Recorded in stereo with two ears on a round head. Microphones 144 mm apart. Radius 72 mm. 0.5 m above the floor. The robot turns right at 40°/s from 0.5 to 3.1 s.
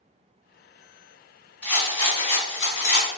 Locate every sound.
1.6 s a rattle: 5° left, 1.6 m; by 3.1 s 65° left, 1.6 m